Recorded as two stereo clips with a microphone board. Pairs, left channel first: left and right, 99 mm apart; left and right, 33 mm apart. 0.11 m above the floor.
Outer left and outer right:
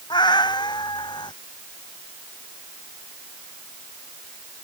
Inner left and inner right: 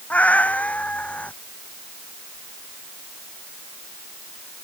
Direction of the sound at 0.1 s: 50° left (ahead or behind).